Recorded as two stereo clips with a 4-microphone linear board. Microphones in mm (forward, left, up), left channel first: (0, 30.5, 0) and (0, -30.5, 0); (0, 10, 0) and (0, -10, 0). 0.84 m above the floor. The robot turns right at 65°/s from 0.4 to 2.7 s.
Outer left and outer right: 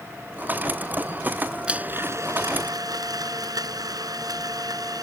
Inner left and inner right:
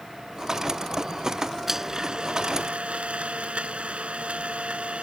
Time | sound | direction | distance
1.7 | a blender | 165° right | ?